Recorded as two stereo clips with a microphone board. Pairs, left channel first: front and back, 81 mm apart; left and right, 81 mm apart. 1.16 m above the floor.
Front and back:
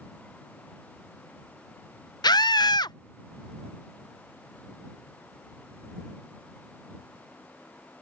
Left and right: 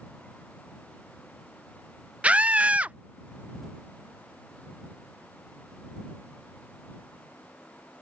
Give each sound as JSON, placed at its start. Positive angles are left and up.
{"t": 2.2, "sound": "a scream", "azimuth_deg": -15}